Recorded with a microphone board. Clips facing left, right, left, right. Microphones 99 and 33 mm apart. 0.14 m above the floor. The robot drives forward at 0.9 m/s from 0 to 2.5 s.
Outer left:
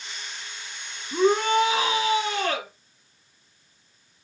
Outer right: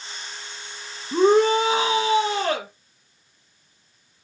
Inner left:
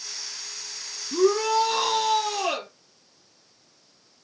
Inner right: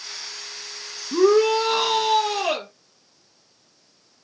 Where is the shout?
25° right (ahead or behind), 1.1 m; by 2.7 s 15° right (ahead or behind), 2.0 m.